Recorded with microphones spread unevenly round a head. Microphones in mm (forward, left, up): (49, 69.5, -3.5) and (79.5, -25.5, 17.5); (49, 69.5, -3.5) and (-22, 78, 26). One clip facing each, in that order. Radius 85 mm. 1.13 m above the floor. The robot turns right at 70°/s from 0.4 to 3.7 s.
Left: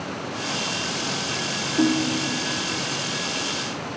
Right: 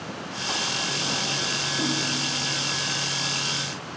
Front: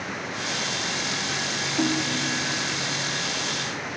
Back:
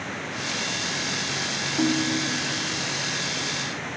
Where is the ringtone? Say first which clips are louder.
Left 9 dB, back 2 dB; 85° left, 1.0 m; by 2.6 s 140° left, 1.0 m.